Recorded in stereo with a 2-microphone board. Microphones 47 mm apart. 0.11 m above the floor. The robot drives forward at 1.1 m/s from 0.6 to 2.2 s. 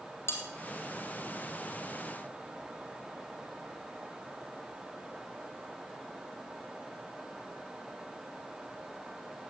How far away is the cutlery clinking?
About 2 m.